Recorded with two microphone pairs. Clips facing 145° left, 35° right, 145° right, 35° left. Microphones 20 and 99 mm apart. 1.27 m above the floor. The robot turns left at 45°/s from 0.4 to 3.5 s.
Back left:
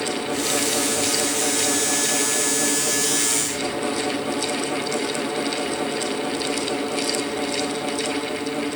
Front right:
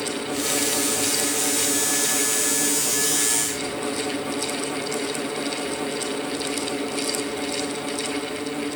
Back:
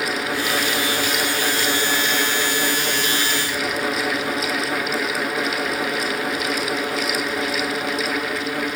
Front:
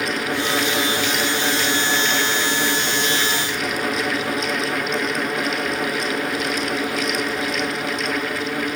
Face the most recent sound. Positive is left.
No sound to turn to.